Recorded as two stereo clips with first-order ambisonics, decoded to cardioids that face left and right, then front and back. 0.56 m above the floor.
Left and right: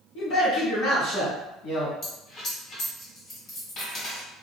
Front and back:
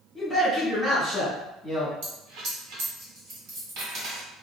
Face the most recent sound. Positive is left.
turn(degrees=150)